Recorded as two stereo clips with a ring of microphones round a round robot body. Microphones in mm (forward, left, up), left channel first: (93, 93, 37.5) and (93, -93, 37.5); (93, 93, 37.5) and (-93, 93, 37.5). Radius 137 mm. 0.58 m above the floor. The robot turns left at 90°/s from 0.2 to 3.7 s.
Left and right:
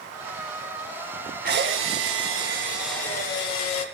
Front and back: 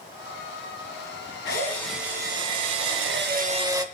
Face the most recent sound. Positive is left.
turn(degrees=110)